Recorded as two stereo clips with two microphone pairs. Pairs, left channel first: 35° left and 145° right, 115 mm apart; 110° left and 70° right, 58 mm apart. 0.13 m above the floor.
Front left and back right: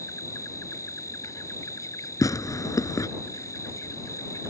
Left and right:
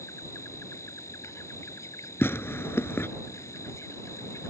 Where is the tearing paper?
85° left.